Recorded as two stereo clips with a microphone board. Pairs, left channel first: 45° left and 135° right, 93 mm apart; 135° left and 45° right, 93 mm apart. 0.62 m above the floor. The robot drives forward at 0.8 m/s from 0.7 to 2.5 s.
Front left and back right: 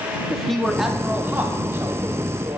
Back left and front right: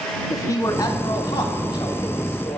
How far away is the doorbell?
No doorbell in this recording.